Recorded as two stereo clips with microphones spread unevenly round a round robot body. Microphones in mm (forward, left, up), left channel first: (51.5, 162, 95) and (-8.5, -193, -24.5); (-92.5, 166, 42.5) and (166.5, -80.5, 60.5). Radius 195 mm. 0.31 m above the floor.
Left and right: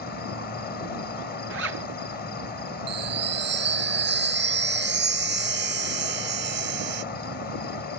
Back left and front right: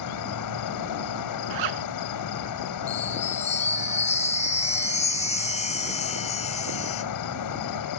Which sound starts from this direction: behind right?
A chime, at 2.9 s.